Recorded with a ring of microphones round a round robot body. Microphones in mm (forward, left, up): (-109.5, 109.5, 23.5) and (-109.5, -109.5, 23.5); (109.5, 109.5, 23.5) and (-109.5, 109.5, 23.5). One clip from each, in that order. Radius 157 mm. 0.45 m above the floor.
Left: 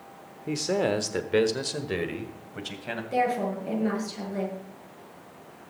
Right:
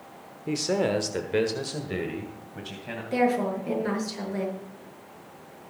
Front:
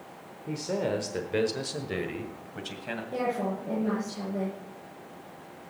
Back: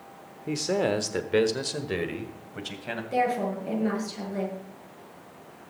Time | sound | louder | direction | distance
0.5 | a man speaking | even, back 4 dB | 175° right | 1.1 m
3.1 | a woman speaking | right 2 dB, back 5 dB | 150° right | 7 m